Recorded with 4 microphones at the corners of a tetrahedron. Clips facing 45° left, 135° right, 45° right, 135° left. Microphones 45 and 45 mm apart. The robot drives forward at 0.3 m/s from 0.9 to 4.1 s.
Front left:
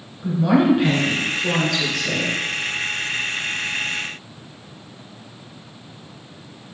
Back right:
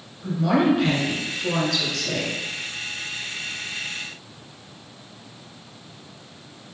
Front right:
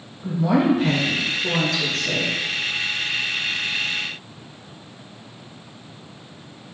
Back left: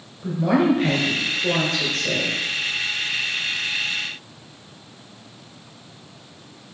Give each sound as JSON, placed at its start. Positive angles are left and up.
{"t": 0.2, "sound": "a woman speaking", "azimuth_deg": 120, "distance_m": 2.0}